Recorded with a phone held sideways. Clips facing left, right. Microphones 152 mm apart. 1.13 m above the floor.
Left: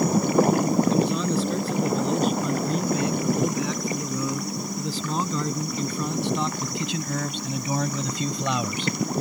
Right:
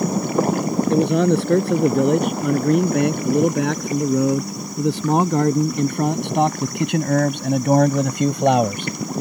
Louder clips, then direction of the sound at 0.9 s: Right 6 dB; 70° right (ahead or behind).